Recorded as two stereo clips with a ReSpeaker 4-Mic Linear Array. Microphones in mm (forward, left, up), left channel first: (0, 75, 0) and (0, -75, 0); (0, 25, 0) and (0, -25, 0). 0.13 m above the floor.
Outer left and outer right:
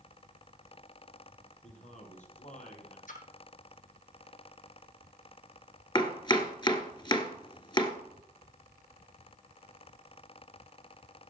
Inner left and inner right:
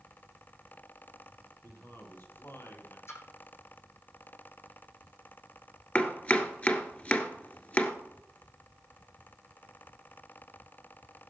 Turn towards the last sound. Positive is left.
turn(degrees=30)  # may be behind; listen again after turning